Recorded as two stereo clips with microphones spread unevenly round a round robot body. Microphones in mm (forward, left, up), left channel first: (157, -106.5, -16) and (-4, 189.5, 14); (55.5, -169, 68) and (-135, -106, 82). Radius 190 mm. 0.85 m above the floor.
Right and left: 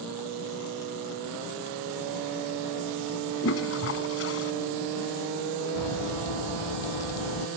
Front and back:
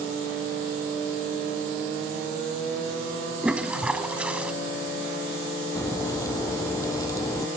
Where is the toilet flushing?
115° right.